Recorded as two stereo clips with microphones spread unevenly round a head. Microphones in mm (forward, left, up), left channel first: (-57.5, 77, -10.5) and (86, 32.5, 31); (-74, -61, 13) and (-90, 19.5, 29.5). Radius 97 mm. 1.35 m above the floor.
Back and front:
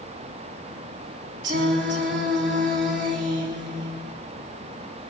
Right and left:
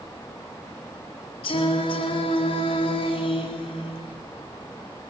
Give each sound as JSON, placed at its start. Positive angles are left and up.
{"t": 1.4, "sound": "singing", "azimuth_deg": -55, "distance_m": 3.5}